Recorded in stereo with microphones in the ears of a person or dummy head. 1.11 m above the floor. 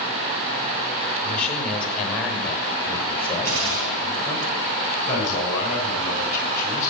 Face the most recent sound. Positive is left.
turn(degrees=15)  # may be behind; listen again after turning